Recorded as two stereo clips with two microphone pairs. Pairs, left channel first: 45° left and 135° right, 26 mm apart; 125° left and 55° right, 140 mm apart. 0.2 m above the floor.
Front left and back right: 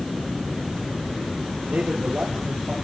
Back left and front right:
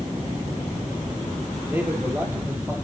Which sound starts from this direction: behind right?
A man speaking, at 1.7 s.